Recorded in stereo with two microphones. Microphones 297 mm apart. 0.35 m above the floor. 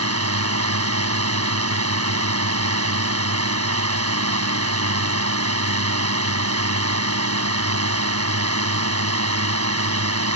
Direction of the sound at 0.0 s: 55° right (ahead or behind).